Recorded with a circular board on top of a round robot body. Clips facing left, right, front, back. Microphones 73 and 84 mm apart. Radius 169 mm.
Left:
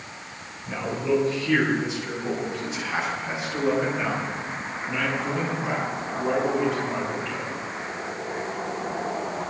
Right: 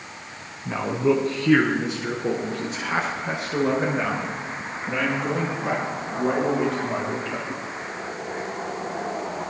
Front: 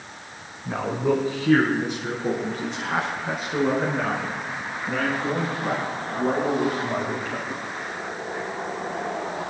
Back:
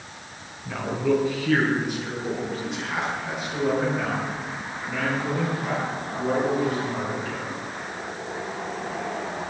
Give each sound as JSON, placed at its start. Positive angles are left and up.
{"t": 0.7, "sound": "a man speaking", "azimuth_deg": -60, "distance_m": 5.0}